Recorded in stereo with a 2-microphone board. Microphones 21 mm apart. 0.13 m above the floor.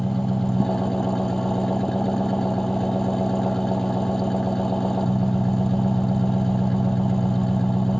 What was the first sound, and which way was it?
An engine running, 20° left (ahead or behind).